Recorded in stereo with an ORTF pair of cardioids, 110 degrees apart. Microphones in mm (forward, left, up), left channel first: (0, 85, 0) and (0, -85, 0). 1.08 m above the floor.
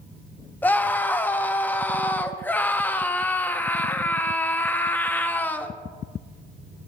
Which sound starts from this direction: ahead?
A scream, at 0.6 s.